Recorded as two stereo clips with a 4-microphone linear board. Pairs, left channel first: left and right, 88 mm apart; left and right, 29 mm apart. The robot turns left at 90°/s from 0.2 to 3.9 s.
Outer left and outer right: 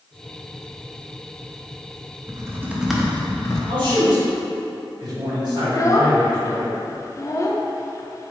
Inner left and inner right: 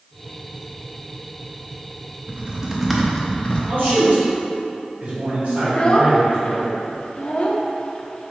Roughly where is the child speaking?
Left.